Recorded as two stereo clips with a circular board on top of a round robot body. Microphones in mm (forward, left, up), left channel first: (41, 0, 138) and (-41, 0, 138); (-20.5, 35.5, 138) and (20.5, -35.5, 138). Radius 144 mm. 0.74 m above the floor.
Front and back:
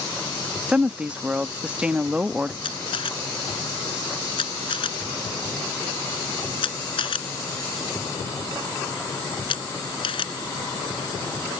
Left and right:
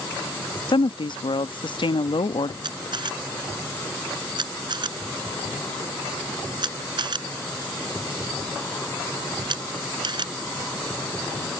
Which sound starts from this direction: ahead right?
A camera shutter, at 2.6 s.